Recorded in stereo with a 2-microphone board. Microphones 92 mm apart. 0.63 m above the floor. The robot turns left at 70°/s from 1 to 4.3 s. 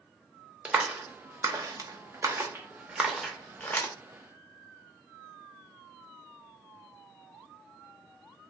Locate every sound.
0.7 s a clap: 15° right (ahead or behind), 0.5 m; by 3.9 s 25° left (ahead or behind), 0.5 m